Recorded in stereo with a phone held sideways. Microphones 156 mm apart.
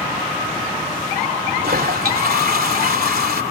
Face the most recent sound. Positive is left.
turn(degrees=-75)  # may be behind; listen again after turning